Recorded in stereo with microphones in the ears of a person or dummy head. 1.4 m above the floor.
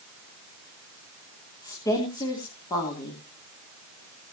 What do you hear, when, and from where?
1.6 s a woman speaking: 25° left (ahead or behind), 3 m